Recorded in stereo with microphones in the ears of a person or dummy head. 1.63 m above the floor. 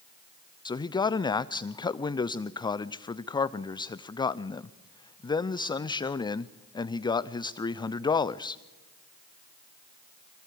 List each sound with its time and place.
0.7 s a man speaking: 25° left (ahead or behind), 0.5 m